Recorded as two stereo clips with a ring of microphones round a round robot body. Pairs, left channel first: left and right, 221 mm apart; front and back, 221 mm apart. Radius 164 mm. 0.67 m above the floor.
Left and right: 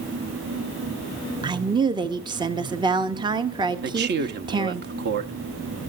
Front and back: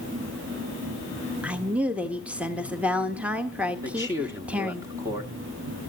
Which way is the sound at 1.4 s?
105° right.